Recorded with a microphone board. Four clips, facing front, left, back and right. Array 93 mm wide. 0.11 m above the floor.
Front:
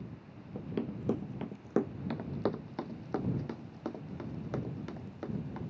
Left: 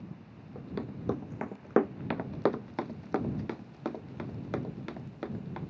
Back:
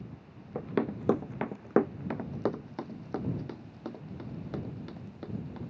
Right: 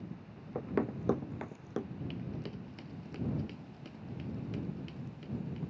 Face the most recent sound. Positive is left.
turn(degrees=75)